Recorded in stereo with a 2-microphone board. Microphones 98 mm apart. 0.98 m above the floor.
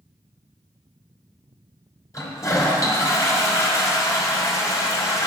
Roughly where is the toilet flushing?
Left.